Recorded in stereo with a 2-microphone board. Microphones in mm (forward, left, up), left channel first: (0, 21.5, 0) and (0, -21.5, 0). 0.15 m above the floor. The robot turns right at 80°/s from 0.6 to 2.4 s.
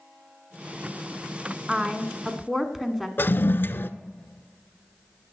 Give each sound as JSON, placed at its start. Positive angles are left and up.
{"t": 1.7, "sound": "a woman speaking", "side_deg": -20, "distance_m": 1.0}
{"t": 3.2, "sound": "a toilet flushing", "side_deg": 60, "distance_m": 0.5}